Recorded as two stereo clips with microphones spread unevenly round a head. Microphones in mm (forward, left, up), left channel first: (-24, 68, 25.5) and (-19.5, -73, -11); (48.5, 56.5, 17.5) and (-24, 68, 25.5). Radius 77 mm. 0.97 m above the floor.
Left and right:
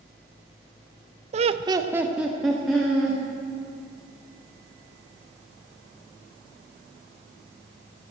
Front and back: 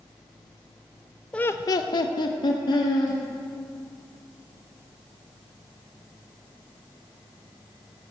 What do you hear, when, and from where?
1.3 s laughter: 85° right, 0.6 m; by 3.2 s 5° left, 2 m